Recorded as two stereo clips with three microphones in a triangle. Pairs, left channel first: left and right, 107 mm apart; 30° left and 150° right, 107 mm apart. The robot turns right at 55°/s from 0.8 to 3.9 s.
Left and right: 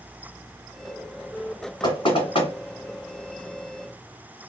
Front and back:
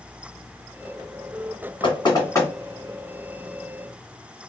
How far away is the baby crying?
No baby crying in this recording.